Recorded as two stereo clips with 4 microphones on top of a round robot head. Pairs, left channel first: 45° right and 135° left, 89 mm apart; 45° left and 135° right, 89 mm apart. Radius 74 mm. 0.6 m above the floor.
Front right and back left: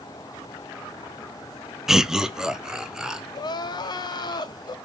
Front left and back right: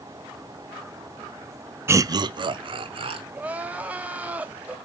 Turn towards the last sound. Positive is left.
turn(degrees=-65)